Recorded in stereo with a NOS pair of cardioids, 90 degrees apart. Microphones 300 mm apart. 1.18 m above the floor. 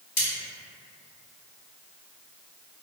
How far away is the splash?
I don't hear a splash.